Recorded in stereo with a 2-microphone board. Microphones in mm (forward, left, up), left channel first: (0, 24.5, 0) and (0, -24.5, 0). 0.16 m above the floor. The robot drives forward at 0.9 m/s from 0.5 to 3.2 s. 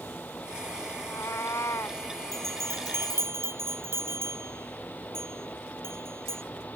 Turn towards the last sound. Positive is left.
turn(degrees=-60)  # may be behind; listen again after turning